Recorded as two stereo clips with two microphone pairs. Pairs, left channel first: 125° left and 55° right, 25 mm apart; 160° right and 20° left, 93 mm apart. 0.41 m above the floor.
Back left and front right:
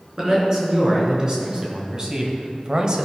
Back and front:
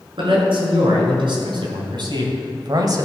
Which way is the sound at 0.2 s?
5° left.